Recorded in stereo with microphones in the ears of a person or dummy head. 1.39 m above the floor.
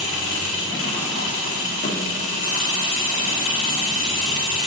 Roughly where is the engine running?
Left.